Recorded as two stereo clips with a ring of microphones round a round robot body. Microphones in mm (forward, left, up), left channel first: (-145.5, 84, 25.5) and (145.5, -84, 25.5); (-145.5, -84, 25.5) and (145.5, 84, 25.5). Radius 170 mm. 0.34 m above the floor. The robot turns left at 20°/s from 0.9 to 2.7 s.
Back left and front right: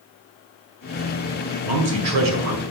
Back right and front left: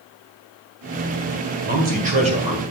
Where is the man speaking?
20° right, 2 m; by 2.6 s 40° right, 2 m.